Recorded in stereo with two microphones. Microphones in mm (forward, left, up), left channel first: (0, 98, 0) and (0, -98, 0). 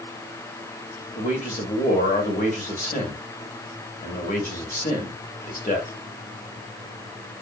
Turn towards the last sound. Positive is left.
turn(degrees=40)  # may be behind; listen again after turning